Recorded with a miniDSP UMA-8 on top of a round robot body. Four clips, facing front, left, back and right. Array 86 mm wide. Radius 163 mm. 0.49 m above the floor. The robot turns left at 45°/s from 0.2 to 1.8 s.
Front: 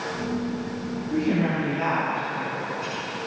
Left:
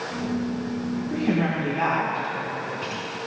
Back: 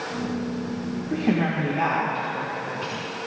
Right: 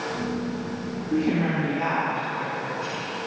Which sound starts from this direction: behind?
A woman speaking, at 1.1 s.